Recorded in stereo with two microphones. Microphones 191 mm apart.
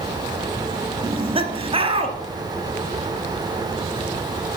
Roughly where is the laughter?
Right.